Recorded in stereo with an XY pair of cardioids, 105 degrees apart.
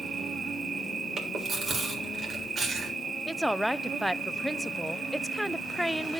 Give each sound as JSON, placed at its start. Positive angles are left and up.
{"t": 0.0, "sound": "an insect", "azimuth_deg": -35, "distance_m": 0.8}
{"t": 1.2, "sound": "chewing", "azimuth_deg": -40, "distance_m": 3.5}
{"t": 3.3, "sound": "a woman speaking", "azimuth_deg": 0, "distance_m": 0.5}